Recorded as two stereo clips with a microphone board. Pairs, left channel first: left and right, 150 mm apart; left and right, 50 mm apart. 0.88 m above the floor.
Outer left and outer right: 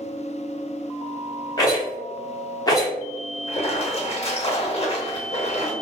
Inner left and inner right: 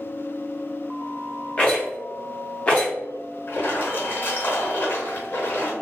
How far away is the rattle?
About 1.0 m.